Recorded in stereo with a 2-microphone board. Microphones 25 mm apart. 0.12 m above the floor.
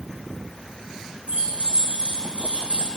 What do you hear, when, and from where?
1.3 s keys jangling: 70° right (ahead or behind), 4.5 m; by 2.9 s 55° right (ahead or behind), 4.5 m